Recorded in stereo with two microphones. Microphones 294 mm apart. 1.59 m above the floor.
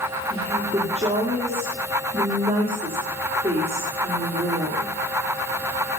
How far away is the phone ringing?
I don't hear a phone ringing.